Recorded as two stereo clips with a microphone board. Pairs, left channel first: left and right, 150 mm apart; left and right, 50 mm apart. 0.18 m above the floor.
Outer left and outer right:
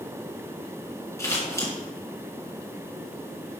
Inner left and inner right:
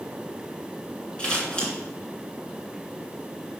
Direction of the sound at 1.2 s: 20° left (ahead or behind).